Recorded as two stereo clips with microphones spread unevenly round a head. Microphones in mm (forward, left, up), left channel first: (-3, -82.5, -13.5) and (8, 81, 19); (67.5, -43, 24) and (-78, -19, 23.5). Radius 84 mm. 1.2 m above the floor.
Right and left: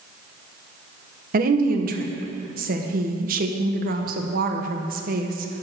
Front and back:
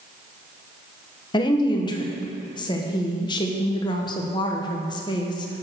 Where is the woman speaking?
50° left, 1.0 m.